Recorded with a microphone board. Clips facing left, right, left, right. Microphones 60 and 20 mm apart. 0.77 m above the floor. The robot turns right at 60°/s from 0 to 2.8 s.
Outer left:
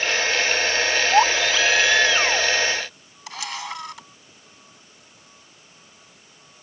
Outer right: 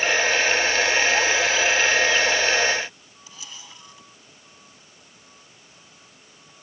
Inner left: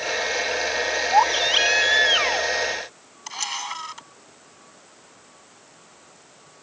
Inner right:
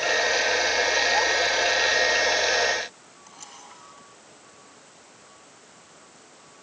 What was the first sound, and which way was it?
A baby crying, 50° left.